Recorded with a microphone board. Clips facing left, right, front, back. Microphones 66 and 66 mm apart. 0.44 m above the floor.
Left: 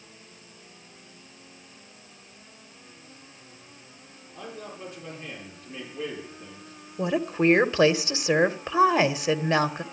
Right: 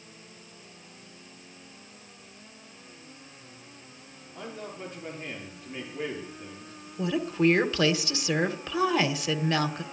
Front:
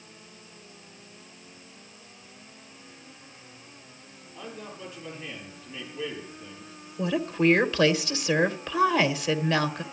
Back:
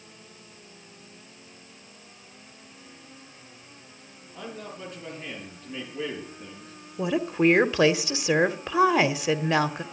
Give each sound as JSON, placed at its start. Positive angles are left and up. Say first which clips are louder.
{"t": 4.3, "sound": "a man speaking", "louder": "even, back 2 dB", "azimuth_deg": -145, "distance_m": 6.5}
{"t": 7.0, "sound": "a woman speaking", "louder": "left 1 dB, back 2 dB", "azimuth_deg": 125, "distance_m": 0.9}